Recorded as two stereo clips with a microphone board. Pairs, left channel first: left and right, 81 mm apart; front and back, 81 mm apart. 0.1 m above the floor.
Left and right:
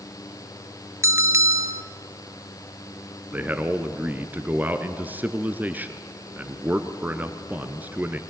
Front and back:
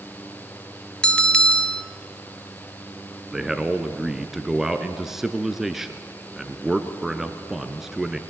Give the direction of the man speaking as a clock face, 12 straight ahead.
3 o'clock.